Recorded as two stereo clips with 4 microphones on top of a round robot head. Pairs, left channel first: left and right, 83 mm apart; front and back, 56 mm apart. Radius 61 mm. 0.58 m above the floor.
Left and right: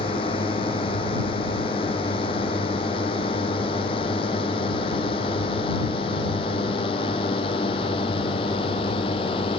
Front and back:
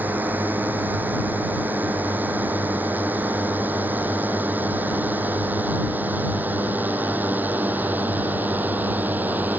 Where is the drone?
120° left.